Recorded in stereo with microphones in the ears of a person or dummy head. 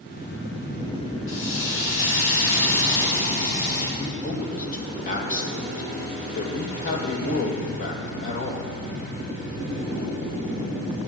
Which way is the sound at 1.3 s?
40° left (ahead or behind).